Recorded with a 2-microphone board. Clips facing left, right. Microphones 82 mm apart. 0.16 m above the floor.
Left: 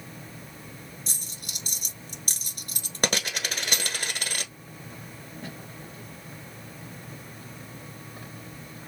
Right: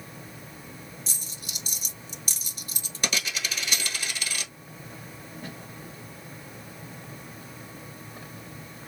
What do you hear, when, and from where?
1.1 s a dropped coin: 55° left (ahead or behind), 1.0 m